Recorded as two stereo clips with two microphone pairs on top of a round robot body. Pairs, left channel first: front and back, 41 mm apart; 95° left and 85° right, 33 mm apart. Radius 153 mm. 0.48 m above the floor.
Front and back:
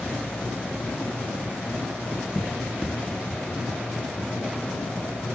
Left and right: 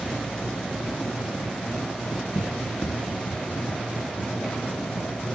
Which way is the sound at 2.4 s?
70° left.